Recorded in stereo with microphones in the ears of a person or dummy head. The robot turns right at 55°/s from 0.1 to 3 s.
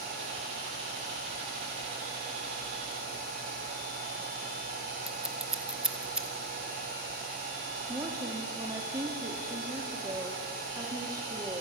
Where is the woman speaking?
20° right (ahead or behind), 2.5 m.